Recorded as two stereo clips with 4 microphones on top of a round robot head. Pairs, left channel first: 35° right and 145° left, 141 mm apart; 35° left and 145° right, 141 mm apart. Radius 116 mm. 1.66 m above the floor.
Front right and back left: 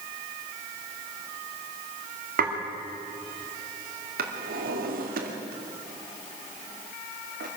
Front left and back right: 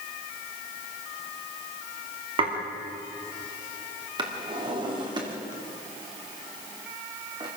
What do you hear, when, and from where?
2.4 s dishes clattering: 165° left, 3 m
4.2 s a drawer: 160° left, 3 m